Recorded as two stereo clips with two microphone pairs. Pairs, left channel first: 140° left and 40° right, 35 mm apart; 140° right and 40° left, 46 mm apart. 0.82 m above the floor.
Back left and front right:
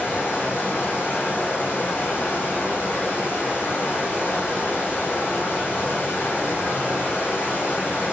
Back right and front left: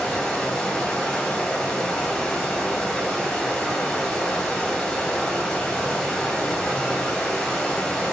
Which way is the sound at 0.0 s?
140° left.